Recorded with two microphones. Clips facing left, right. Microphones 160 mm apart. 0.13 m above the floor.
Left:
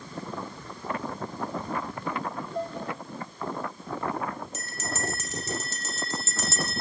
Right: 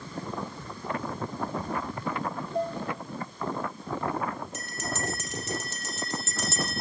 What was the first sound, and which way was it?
Dishes clattering, 45° right (ahead or behind).